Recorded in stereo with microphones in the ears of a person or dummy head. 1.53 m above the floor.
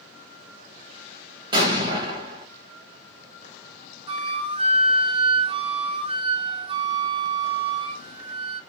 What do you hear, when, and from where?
1.5 s an explosion: 30° right (ahead or behind), 1.1 m
4.1 s a flute: 40° right (ahead or behind), 0.6 m